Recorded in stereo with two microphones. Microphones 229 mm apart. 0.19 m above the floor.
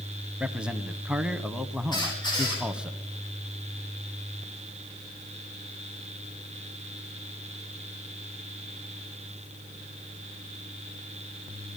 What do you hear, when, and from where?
0.4 s a man speaking: 5° right (ahead or behind), 1.2 m
1.9 s a squeak: 20° left (ahead or behind), 9 m